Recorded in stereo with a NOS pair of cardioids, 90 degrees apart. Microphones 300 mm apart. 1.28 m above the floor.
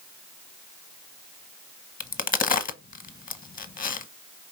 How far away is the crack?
About 0.9 m.